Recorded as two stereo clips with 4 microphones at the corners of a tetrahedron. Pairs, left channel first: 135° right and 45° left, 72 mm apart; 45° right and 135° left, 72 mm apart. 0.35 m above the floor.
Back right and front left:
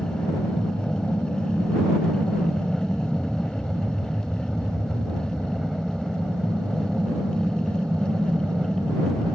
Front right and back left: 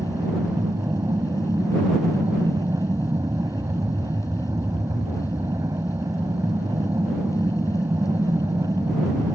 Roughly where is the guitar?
I don't hear a guitar.